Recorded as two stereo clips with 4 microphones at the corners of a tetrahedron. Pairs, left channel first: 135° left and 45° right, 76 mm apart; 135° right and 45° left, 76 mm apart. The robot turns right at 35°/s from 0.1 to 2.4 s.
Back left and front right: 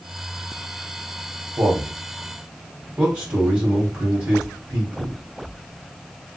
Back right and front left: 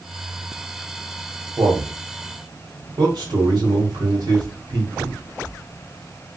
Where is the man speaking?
Straight ahead, 1.7 m; by 5.2 s 30° left, 1.7 m.